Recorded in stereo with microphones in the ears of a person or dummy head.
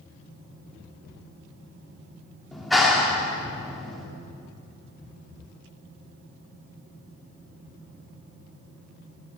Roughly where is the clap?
Centre.